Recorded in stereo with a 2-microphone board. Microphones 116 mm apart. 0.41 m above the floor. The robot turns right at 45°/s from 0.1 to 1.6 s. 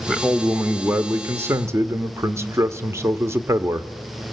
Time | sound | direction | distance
0.1 | a man speaking | centre (ahead or behind) | 0.8 m